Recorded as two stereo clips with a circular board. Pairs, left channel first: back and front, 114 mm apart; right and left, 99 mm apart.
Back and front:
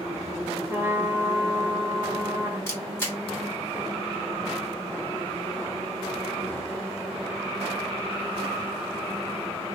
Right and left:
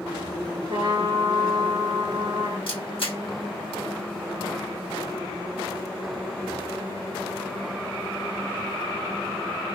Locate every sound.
0.7 s a trumpet: 70° left, 2.5 m
2.7 s a camera shutter: 110° right, 1.9 m